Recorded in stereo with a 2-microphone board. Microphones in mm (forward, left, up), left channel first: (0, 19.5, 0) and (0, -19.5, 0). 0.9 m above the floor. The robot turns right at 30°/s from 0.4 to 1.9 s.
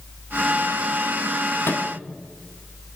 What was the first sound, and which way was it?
A microwave, 75° left (ahead or behind).